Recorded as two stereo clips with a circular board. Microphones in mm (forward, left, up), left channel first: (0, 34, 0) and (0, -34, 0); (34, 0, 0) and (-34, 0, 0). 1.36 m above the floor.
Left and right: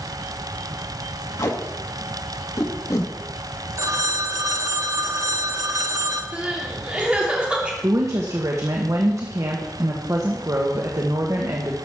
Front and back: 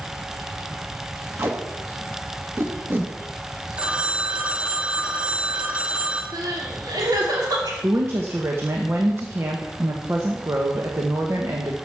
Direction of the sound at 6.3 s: 165° right.